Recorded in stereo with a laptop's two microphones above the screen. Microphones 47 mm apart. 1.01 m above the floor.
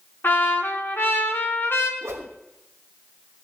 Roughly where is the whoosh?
Right.